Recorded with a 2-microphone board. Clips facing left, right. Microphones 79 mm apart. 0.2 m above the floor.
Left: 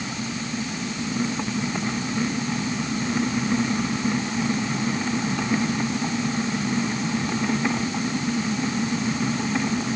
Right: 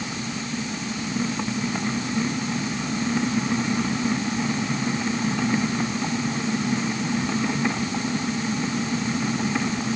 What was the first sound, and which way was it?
Only background noise.